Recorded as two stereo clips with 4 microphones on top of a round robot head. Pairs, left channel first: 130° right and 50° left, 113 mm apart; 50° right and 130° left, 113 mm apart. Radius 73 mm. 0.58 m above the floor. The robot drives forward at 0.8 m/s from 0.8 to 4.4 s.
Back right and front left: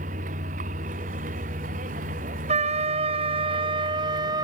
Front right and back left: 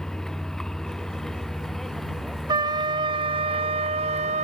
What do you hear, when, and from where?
0.0 s a vehicle: 35° left; by 4.4 s 40° left
2.5 s a trumpet: 75° left; by 4.4 s 105° left